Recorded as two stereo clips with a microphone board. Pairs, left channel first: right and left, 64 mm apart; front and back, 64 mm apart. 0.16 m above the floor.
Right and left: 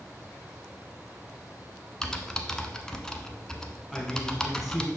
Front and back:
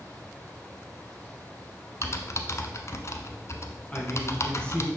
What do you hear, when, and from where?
2.0 s typing on a keyboard: 15° right, 0.9 m
3.9 s a man speaking: straight ahead, 1.7 m